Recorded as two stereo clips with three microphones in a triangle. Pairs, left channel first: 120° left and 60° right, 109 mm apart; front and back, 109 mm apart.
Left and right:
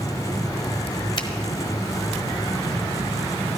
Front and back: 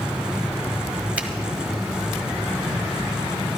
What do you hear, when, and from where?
1.2 s a finger snap: 105° left, 1.2 m